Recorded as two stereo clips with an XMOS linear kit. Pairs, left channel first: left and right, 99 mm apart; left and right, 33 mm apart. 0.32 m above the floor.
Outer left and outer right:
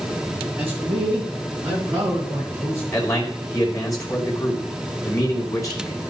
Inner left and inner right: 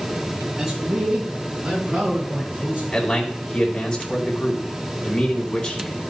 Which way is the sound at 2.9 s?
35° left (ahead or behind).